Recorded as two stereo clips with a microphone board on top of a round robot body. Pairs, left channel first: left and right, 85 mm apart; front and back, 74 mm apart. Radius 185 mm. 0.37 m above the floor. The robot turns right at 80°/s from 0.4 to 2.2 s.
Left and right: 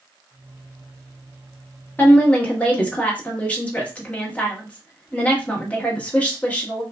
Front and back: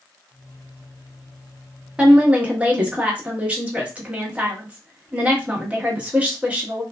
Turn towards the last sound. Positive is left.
turn(degrees=135)